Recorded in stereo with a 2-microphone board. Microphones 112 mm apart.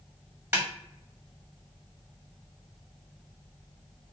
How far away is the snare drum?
About 1.0 m.